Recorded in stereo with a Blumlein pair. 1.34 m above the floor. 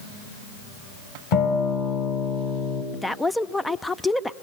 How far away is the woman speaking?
About 0.5 m.